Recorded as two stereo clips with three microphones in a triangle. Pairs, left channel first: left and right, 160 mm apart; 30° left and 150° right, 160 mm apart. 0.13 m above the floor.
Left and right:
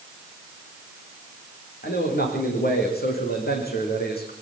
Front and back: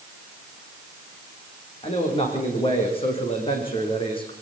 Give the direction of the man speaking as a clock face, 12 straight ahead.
9 o'clock.